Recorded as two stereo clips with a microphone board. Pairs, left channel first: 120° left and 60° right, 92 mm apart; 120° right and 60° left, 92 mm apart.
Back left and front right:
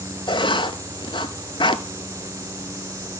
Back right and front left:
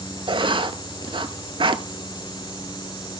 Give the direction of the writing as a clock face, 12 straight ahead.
9 o'clock.